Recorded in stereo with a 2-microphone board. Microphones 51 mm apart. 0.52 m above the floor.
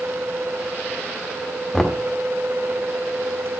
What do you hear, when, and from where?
1.7 s knocking: 5° left (ahead or behind), 0.9 m